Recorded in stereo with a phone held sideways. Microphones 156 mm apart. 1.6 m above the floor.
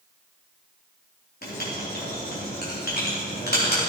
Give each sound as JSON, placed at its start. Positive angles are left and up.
{"t": 1.4, "sound": "writing", "side_deg": 85, "distance_m": 4.0}